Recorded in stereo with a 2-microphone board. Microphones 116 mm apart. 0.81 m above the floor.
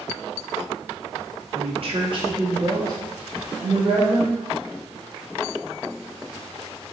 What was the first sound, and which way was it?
A woman speaking, 55° right (ahead or behind).